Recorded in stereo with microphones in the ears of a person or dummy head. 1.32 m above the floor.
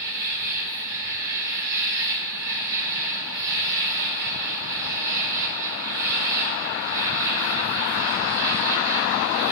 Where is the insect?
45° right (ahead or behind), 1.0 m.